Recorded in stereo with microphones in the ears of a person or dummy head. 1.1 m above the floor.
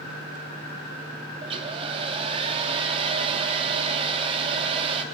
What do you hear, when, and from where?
1.4 s a hair dryer: 25° right (ahead or behind), 1.0 m